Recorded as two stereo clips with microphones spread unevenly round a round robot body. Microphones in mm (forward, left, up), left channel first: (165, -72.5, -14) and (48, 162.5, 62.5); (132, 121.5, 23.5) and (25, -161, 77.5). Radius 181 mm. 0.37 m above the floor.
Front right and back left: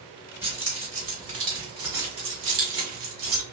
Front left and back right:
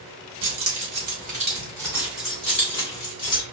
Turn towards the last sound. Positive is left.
turn(degrees=140)